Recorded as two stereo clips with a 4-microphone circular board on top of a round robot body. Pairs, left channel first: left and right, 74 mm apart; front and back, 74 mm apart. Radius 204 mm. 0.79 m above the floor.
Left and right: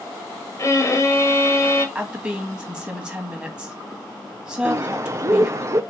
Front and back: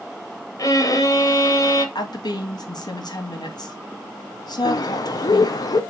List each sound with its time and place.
0.6 s a violin: 40° left, 1.5 m
1.9 s a woman speaking: 15° right, 2 m
4.7 s a bird: 40° right, 0.6 m